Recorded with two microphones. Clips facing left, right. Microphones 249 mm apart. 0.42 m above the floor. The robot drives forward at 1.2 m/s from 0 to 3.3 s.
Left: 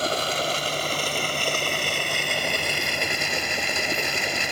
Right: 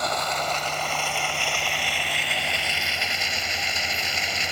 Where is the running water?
35° left (ahead or behind); by 4.5 s 60° left (ahead or behind).